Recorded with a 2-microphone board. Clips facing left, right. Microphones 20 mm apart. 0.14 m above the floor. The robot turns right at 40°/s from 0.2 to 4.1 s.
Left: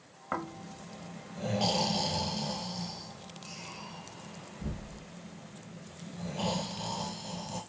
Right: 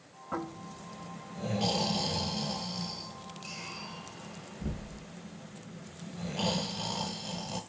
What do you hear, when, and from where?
0.3 s snoring: 45° left (ahead or behind), 1.0 m; by 7.6 s 45° right (ahead or behind), 1.0 m